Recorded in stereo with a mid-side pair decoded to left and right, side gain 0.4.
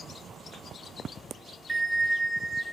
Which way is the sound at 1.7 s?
20° right.